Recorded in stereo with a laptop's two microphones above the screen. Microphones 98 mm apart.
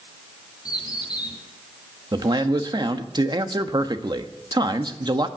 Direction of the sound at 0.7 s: 40° left (ahead or behind).